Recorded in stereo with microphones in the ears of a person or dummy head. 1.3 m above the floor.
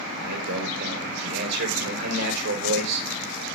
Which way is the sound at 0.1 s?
70° right (ahead or behind).